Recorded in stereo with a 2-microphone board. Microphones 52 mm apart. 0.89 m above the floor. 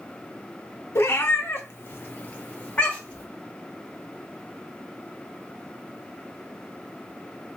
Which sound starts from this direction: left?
A cat meowing, at 0.9 s.